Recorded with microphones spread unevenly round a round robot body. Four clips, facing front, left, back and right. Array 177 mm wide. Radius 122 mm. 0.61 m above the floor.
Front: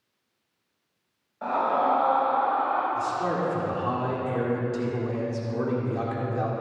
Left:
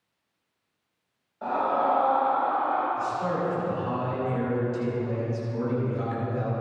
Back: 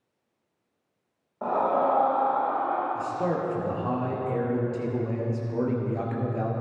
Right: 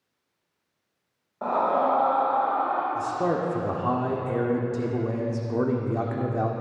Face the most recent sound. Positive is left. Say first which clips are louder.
# right 2 dB, front 1 dB
turn(degrees=-90)